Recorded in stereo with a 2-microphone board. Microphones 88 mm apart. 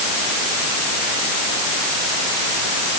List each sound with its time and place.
Only background noise.